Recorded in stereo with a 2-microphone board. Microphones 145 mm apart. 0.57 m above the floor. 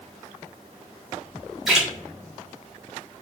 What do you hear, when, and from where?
1.7 s a splash: 5° right (ahead or behind), 1.4 m